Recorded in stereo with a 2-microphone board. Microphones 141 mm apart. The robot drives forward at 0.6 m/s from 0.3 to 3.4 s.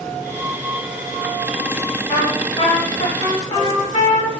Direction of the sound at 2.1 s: 35° left (ahead or behind).